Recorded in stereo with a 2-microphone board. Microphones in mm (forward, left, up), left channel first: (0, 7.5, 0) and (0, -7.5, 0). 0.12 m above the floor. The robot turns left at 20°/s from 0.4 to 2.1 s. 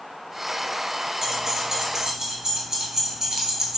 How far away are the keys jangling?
About 1.2 m.